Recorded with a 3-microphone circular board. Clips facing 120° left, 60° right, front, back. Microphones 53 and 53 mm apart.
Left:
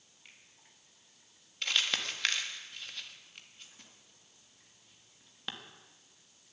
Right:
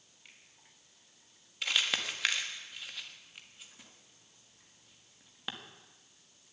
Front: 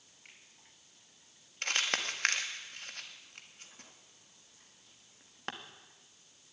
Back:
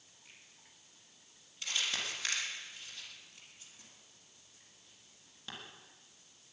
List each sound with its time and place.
0.2 s a finger snap: 30° left, 4.5 m
1.6 s crumpling: 20° left, 1.7 m